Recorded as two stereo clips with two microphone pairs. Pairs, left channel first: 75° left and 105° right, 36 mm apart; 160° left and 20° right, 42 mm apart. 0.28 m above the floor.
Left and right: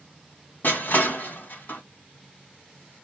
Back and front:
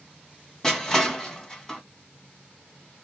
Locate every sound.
0.6 s crushing: 85° left, 1.3 m